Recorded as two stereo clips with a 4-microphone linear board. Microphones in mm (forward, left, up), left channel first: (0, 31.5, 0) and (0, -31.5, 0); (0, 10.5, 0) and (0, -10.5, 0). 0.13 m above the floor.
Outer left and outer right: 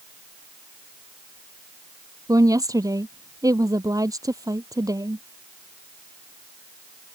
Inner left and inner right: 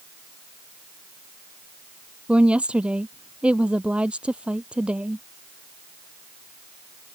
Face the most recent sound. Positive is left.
turn(degrees=-65)  # may be behind; listen again after turning